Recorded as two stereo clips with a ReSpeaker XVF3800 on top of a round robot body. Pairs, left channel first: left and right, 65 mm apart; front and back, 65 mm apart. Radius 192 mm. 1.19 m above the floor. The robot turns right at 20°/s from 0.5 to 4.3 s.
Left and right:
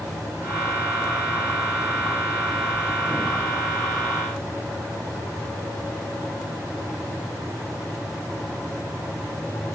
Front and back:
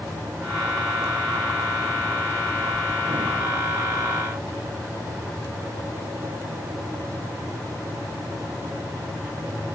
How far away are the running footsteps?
I don't hear running footsteps.